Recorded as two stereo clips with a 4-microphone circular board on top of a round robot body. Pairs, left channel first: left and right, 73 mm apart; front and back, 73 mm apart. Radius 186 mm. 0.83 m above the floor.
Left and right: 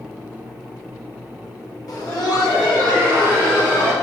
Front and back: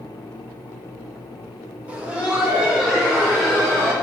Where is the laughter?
110° left, 1.9 m; by 3.9 s 95° left, 4 m.